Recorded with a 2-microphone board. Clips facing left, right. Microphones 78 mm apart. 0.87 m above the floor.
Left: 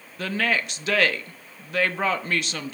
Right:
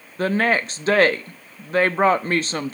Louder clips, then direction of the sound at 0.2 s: Right 5 dB; 35° right (ahead or behind).